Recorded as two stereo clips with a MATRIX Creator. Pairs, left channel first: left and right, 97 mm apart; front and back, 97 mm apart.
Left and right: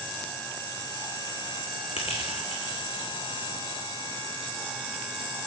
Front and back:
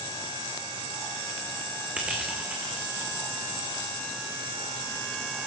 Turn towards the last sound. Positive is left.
turn(degrees=105)